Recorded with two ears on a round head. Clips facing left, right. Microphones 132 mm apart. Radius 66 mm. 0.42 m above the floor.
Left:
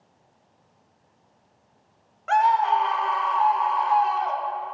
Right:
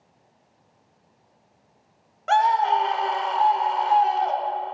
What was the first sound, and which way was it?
A scream, 40° right (ahead or behind).